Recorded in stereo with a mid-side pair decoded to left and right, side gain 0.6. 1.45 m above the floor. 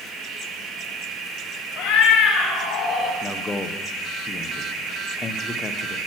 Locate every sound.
1.8 s a cat meowing: 65° left, 2 m; by 3.1 s 40° left, 2.5 m
3.2 s a man speaking: 20° left, 0.9 m